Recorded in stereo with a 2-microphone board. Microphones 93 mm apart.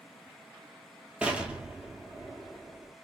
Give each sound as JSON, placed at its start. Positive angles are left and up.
{"t": 1.2, "sound": "an explosion", "side_deg": -15, "distance_m": 0.6}